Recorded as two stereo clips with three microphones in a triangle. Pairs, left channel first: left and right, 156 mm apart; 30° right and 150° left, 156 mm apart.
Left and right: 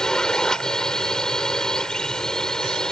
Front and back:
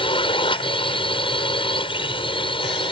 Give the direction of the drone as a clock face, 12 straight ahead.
12 o'clock.